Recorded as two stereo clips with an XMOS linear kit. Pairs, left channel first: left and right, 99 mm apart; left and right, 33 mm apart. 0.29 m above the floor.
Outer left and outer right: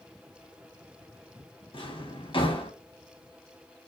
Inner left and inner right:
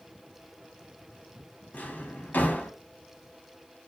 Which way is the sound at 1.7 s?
65° left (ahead or behind).